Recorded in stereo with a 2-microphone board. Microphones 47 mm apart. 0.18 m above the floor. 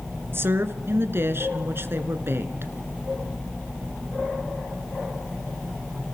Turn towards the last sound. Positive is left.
turn(degrees=-55)  # may be behind; listen again after turning